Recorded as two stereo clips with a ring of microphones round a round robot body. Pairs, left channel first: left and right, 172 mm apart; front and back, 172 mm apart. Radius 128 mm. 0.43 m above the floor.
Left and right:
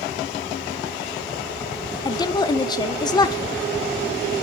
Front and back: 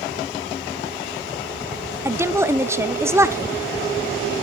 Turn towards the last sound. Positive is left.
turn(degrees=120)